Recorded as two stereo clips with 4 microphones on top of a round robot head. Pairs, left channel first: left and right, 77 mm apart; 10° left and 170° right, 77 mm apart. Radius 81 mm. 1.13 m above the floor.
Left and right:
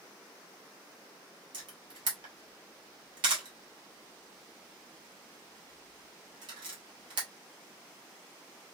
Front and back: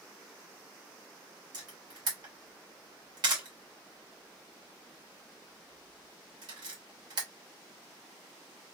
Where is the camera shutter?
125° right, 1.2 m.